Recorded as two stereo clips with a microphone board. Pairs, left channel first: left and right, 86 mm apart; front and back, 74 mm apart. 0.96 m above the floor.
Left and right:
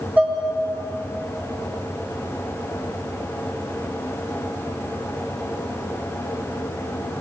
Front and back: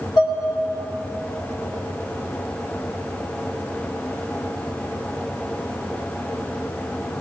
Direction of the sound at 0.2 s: 20° right.